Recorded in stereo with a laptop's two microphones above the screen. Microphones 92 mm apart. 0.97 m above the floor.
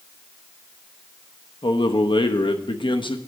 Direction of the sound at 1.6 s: 60° left (ahead or behind).